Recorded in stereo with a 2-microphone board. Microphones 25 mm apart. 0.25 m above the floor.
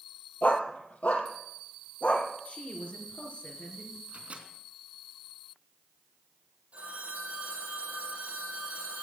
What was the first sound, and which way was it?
A dog barking, 75° left (ahead or behind).